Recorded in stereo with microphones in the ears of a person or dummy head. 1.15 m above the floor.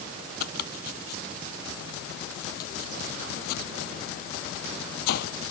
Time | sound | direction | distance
0.4 | chopping | 65° left (ahead or behind) | ?